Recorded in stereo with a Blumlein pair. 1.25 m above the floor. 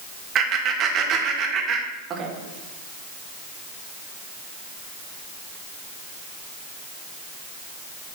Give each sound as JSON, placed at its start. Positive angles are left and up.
{"t": 0.3, "sound": "laughter", "azimuth_deg": -25, "distance_m": 1.5}